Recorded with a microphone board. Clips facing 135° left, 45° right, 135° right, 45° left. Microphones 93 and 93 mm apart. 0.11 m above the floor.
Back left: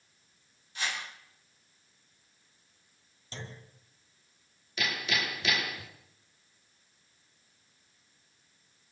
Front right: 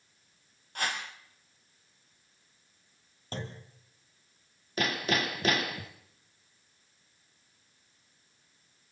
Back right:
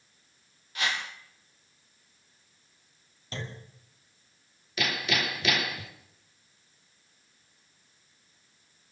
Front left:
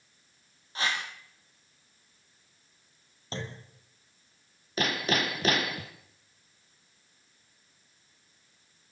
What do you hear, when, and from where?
0.8 s a whoosh: 10° right, 4 m
3.3 s a clunk: 10° right, 3 m
4.8 s hammering: straight ahead, 2.0 m